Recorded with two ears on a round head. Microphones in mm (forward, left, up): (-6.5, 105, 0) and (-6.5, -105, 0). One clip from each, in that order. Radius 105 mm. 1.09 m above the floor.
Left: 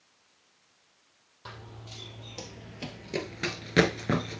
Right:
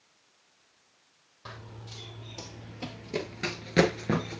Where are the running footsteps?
10° left (ahead or behind), 2.5 m.